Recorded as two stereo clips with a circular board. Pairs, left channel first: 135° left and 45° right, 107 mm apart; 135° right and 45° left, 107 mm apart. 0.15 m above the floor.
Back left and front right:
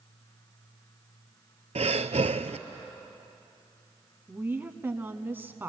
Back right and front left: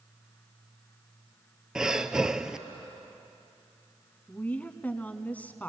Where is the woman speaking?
85° right, 1.1 m.